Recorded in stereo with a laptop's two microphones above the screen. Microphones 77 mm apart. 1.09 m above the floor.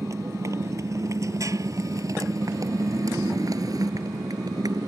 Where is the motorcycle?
40° right (ahead or behind); by 4.9 s 55° right (ahead or behind).